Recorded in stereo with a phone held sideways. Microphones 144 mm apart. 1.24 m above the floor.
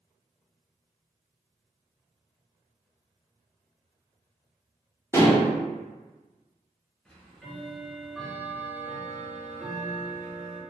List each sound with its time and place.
5.1 s dishes clattering: 20° left (ahead or behind), 0.7 m
7.0 s ticking: 5° left (ahead or behind), 0.8 m